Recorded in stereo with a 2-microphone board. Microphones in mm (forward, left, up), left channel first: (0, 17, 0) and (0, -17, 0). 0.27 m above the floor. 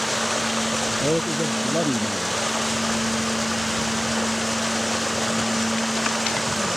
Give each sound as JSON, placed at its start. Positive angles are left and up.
{"t": 0.0, "sound": "running water", "side_deg": 0}
{"t": 1.0, "sound": "a man speaking", "side_deg": 0}